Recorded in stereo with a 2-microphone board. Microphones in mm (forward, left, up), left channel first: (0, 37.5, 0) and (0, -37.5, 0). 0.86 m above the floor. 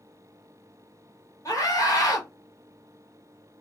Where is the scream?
50° left (ahead or behind), 1.1 m.